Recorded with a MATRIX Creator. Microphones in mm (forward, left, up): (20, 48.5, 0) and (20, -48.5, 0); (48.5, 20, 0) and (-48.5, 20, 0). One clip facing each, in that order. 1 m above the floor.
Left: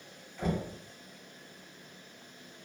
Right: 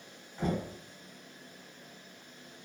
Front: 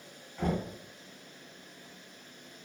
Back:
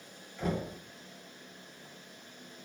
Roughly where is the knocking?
Ahead right.